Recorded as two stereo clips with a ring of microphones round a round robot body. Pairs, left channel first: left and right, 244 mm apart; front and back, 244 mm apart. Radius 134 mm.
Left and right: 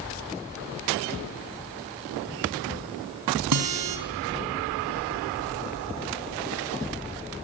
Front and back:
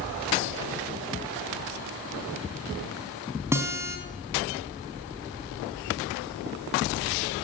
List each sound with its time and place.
3.5 s a guitar: 100° right, 3.5 m